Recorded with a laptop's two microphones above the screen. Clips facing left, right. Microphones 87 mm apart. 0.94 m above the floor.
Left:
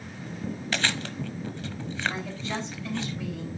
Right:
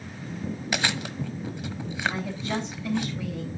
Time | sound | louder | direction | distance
0.7 | chewing | right 1 dB | 15° right (ahead or behind) | 1.2 m
2.1 | a woman speaking | right 3 dB | 15° right (ahead or behind) | 4.5 m